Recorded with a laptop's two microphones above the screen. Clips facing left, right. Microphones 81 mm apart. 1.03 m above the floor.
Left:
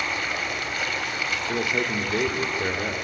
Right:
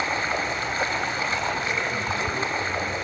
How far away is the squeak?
I don't hear a squeak.